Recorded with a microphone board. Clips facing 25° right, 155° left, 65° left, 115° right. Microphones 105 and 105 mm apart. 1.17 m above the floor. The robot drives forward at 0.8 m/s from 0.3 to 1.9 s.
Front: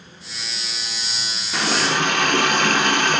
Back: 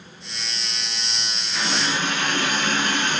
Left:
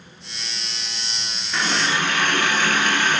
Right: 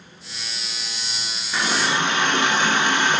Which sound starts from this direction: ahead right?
A running tap, at 1.5 s.